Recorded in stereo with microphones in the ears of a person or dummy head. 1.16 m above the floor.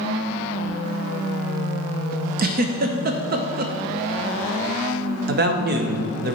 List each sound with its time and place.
2.4 s a giggle: 45° right (ahead or behind), 0.5 m
5.3 s a man speaking: 55° right (ahead or behind), 0.7 m